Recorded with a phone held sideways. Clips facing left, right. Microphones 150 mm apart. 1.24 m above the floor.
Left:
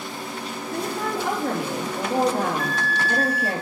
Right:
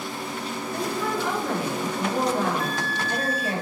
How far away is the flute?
About 0.7 m.